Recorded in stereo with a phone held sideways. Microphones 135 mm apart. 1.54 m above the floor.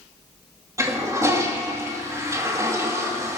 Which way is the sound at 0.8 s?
25° right (ahead or behind).